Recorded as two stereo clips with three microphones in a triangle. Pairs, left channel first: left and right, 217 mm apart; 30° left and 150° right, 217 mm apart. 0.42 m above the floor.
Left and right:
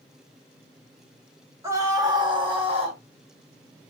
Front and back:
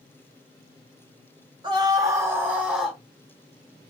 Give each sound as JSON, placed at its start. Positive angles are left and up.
{"t": 1.6, "sound": "a scream", "azimuth_deg": -145, "distance_m": 1.2}